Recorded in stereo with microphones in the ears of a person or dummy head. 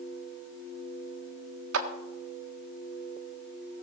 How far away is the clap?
About 1.4 m.